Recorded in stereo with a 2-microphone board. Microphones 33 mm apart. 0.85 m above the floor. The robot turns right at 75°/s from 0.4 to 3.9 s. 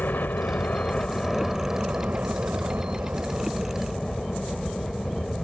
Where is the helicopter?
105° left; by 5.4 s 5° left.